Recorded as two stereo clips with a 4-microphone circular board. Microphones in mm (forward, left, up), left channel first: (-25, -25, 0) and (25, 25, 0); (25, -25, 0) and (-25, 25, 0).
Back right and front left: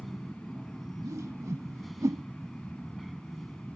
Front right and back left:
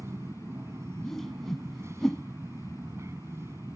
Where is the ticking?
I don't hear ticking.